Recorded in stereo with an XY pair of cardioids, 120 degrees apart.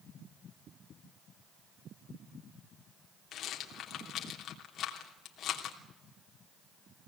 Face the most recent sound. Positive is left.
turn(degrees=60)